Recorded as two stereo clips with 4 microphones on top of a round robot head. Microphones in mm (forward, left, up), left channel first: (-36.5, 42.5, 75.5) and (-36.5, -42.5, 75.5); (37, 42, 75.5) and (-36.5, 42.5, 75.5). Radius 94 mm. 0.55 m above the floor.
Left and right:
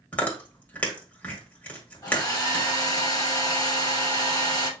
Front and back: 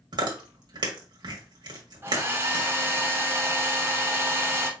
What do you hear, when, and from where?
0.1 s chewing: 160° left, 1.8 m
2.0 s a hair dryer: 130° left, 2 m